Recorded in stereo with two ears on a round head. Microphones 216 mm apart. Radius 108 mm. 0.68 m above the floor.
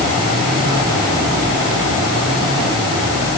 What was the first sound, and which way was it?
Only background noise.